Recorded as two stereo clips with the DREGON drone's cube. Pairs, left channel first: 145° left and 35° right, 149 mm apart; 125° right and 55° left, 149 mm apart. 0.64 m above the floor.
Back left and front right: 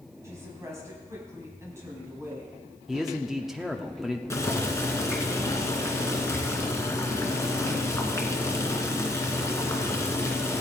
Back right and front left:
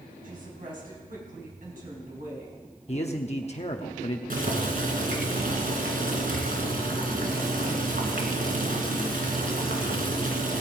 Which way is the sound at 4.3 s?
75° left.